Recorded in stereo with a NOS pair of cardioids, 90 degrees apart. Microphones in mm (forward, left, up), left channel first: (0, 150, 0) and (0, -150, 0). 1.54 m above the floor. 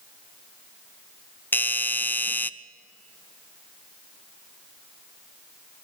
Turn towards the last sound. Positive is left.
turn(degrees=5)